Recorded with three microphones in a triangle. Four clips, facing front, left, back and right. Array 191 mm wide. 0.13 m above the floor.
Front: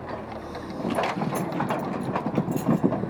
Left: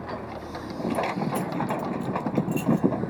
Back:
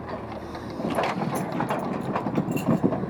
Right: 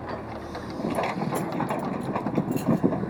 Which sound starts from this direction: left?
Keys jangling, at 0.9 s.